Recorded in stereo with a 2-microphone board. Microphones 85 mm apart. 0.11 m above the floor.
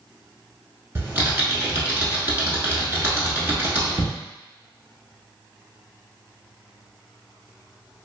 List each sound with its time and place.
0.9 s typing on a keyboard: 25° right (ahead or behind), 0.8 m